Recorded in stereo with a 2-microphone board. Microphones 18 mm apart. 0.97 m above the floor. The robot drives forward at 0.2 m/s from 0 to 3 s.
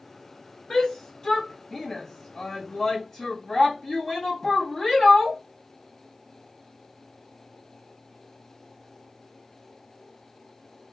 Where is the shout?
45° left (ahead or behind), 0.5 m; by 5.4 s 25° left (ahead or behind), 0.9 m.